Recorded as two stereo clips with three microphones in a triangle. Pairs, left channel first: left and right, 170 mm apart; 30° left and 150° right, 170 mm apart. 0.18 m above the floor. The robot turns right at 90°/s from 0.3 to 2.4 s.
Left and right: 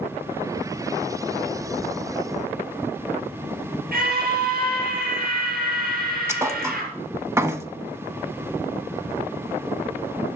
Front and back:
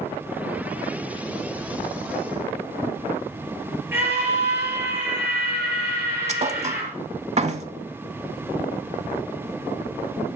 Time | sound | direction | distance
3.9 | a scream | 75° right | 4.5 m
6.3 | a thud | 155° right | 0.7 m